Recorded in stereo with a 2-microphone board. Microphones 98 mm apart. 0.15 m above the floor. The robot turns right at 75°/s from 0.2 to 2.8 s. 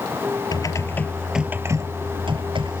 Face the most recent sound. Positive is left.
turn(degrees=-65)